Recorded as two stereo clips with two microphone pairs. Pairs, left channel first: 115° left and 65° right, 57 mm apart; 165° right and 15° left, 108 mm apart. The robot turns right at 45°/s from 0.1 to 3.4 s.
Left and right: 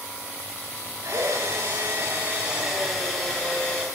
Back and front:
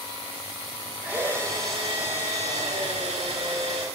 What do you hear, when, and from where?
1.0 s a drill: 60° right, 6 m; by 3.9 s 45° left, 6 m